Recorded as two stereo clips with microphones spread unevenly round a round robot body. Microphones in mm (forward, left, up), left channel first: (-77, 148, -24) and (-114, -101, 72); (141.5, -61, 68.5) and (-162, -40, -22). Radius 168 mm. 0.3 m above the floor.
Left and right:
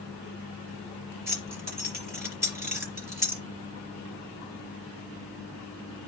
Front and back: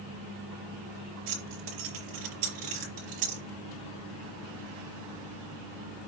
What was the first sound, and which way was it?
Keys jangling, 175° left.